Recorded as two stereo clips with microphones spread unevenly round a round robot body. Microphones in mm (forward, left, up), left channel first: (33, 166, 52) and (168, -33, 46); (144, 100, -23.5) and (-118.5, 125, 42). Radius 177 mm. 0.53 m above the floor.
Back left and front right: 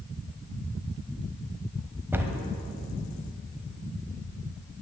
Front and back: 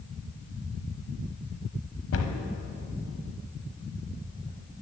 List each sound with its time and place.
2.1 s a cupboard door: 25° left, 1.1 m